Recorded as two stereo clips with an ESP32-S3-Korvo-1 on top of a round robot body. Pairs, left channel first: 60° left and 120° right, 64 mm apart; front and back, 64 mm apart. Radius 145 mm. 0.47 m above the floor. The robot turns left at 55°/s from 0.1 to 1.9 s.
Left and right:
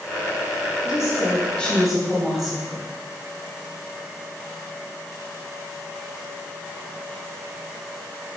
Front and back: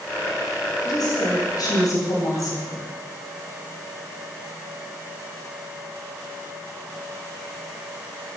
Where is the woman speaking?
25° left, 3 m; by 2.9 s 35° right, 3 m.